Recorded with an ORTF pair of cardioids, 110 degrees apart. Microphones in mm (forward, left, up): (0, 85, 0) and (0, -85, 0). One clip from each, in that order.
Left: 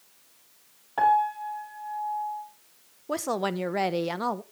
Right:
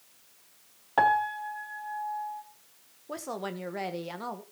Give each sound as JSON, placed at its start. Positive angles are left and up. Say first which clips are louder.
{"t": 1.0, "sound": "a piano", "louder": "left 2 dB", "azimuth_deg": -35, "distance_m": 2.5}
{"t": 3.1, "sound": "a woman speaking", "louder": "left 8 dB", "azimuth_deg": 40, "distance_m": 1.3}